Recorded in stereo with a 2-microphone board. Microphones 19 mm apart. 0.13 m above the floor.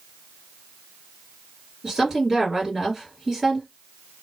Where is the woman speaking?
25° right (ahead or behind), 2.5 m.